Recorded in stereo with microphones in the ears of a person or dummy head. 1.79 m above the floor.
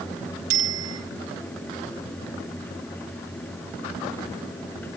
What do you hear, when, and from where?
0.5 s a bicycle bell: 80° right, 7 m